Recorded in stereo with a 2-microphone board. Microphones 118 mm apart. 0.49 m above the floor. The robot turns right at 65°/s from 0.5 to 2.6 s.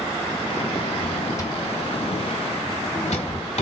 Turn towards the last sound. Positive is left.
turn(degrees=70)  # may be behind; listen again after turning